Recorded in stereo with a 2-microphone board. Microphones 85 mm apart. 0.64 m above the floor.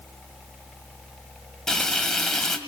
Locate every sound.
1.7 s frying: 5° left (ahead or behind), 1.5 m